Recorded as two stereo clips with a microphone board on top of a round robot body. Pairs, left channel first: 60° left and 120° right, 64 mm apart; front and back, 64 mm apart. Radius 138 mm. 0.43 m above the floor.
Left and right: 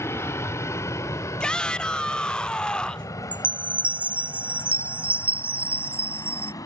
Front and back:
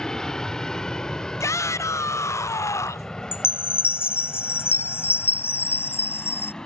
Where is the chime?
50° right.